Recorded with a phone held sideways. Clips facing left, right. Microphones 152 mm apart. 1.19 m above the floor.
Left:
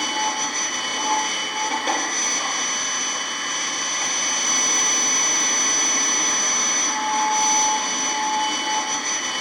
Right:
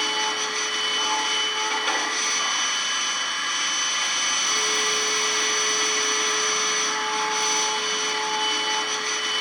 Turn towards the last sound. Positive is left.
turn(degrees=40)  # may be behind; listen again after turning